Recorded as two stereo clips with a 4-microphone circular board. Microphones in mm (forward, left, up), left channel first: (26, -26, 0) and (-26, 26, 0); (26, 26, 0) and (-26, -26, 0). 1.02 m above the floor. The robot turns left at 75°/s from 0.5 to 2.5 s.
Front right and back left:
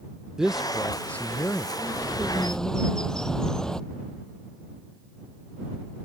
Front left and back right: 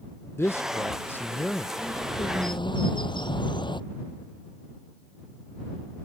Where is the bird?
90° left; by 3.8 s 40° left.